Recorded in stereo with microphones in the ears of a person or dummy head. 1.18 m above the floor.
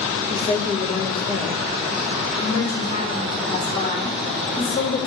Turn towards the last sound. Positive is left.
turn(degrees=50)  # may be behind; listen again after turning